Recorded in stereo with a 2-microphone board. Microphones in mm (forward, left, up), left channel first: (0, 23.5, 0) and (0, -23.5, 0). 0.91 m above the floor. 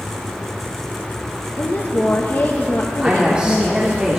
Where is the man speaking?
20° right (ahead or behind), 2.0 m.